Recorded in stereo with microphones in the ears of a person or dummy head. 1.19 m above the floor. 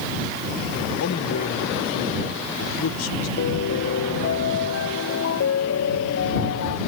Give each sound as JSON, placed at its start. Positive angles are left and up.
{"t": 1.0, "sound": "a man speaking", "side_deg": 85}
{"t": 3.4, "sound": "a piano", "side_deg": 80}